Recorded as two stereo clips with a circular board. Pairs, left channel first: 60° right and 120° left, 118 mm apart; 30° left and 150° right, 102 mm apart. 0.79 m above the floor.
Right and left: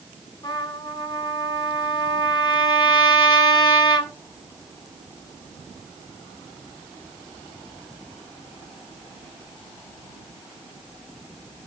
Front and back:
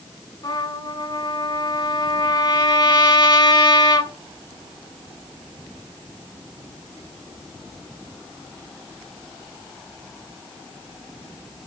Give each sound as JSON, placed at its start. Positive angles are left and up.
{"t": 0.4, "sound": "a trumpet", "azimuth_deg": -10, "distance_m": 3.0}